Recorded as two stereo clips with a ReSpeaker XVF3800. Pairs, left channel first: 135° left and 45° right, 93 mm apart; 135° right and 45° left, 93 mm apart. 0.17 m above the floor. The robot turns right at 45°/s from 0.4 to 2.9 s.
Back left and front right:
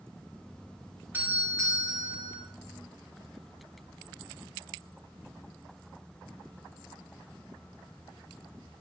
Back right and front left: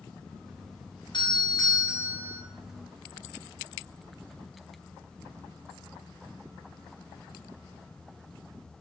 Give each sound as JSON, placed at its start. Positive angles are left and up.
{"t": 1.1, "sound": "a doorbell", "azimuth_deg": -110, "distance_m": 3.5}